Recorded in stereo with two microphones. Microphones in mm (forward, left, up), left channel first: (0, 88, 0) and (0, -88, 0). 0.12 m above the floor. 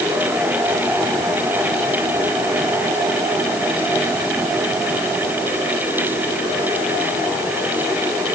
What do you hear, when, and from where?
Only background noise.